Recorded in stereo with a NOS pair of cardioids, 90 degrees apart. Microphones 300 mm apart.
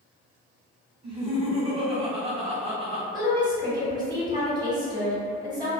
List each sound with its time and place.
1.0 s laughter: 20° right, 1.2 m
3.1 s a woman speaking: 15° right, 1.3 m